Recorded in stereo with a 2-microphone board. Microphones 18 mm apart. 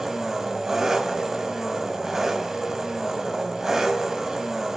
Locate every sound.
0.0 s an engine running: 25° right (ahead or behind), 3.5 m